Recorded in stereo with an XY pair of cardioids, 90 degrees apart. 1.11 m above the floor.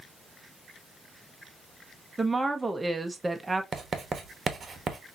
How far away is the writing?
About 1.0 m.